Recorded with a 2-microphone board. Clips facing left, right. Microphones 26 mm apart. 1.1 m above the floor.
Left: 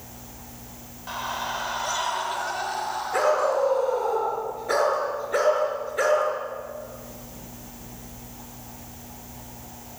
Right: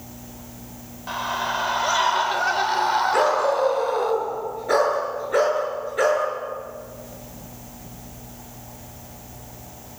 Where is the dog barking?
5° right (ahead or behind), 7.5 m.